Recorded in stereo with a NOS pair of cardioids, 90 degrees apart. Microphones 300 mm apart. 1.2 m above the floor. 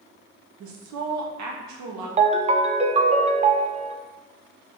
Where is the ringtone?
25° right, 0.5 m.